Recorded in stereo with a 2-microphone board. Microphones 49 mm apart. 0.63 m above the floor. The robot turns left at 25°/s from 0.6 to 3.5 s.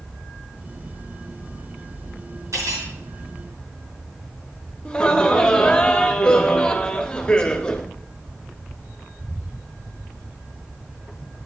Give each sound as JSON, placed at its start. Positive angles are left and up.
{"t": 2.5, "sound": "cutlery clinking", "side_deg": -80, "distance_m": 5.5}
{"t": 4.8, "sound": "laughter", "side_deg": 15, "distance_m": 0.8}